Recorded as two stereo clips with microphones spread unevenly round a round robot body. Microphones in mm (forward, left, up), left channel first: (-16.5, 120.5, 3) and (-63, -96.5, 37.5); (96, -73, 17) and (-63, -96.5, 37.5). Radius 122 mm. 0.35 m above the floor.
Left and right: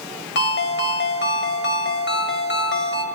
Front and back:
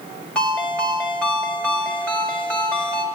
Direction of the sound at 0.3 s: 85° left.